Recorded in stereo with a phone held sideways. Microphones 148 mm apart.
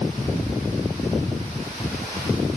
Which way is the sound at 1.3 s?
75° left (ahead or behind).